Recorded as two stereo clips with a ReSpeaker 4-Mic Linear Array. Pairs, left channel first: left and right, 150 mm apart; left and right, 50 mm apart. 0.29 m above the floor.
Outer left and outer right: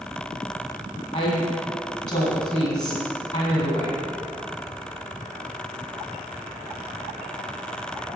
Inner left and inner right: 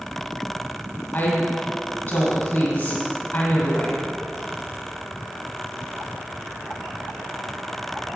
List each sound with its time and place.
1.1 s a woman speaking: 55° left (ahead or behind), 2 m